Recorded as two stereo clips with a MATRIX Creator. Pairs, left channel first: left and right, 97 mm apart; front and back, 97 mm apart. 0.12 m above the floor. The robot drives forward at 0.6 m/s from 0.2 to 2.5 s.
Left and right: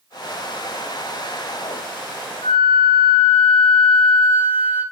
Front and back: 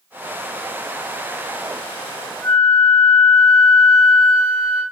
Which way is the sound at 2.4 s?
60° left.